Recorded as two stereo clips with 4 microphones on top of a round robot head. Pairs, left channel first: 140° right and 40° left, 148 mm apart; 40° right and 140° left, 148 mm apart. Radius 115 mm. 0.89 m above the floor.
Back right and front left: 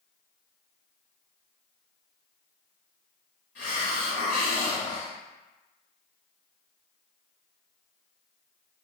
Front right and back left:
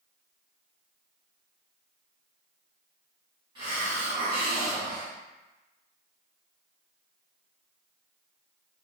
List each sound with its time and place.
3.5 s a hiss: 160° right, 1.3 m